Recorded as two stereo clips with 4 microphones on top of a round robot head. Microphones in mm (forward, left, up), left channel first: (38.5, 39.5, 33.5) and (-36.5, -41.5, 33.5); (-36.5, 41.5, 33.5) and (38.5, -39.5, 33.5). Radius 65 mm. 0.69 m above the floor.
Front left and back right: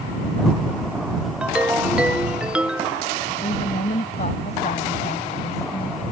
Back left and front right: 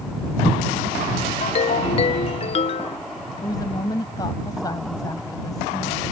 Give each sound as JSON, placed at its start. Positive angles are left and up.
{"t": 1.4, "sound": "a ringtone", "azimuth_deg": 150}
{"t": 3.4, "sound": "a woman speaking", "azimuth_deg": 75}